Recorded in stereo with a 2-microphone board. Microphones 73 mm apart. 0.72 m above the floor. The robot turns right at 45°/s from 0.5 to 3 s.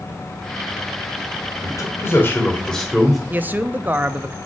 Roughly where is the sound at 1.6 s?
Behind left.